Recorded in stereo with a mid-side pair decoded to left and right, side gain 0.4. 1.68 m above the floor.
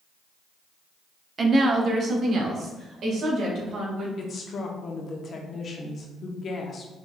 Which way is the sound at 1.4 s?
45° right.